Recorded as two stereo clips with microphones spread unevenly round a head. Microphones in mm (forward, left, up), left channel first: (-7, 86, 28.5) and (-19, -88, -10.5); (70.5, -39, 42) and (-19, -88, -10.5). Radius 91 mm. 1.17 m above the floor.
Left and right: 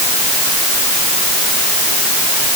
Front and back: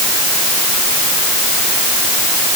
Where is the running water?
I don't hear running water.